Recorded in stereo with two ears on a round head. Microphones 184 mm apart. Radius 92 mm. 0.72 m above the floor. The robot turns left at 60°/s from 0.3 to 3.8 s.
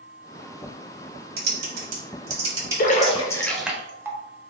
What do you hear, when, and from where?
1.4 s typing on a keyboard: 50° right (ahead or behind), 1.6 m; by 3.5 s 25° left (ahead or behind), 1.6 m
2.8 s a splash: 40° left (ahead or behind), 0.6 m; by 4.2 s 10° right (ahead or behind), 0.6 m